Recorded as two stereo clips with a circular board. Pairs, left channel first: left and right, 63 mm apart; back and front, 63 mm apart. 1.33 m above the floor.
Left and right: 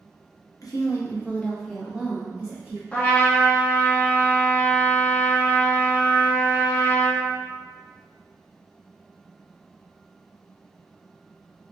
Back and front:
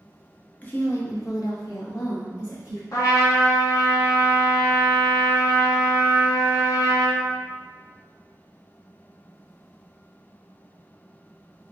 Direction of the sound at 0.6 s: 115° left.